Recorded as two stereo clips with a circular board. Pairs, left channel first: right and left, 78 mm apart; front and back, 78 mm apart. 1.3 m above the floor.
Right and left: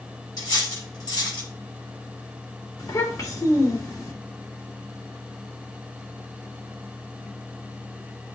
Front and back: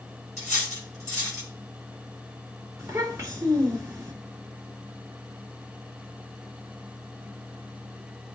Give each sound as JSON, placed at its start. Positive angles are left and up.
{"t": 0.4, "sound": "cutlery clinking", "azimuth_deg": -125, "distance_m": 5.5}
{"t": 2.8, "sound": "a child speaking", "azimuth_deg": -135, "distance_m": 3.0}